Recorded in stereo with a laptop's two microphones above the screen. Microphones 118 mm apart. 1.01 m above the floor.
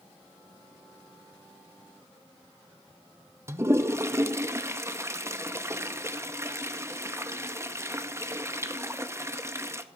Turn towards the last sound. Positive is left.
turn(degrees=-25)  # may be behind; listen again after turning